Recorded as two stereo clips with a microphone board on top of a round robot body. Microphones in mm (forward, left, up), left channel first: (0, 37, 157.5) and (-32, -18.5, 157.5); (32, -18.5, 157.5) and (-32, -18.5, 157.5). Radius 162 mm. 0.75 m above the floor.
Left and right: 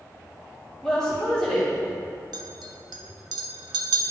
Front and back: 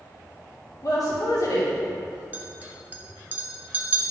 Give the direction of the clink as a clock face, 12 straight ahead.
4 o'clock.